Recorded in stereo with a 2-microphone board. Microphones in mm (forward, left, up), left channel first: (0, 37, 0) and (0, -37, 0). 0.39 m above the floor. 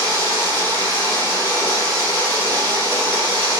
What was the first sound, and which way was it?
Running water, 85° left.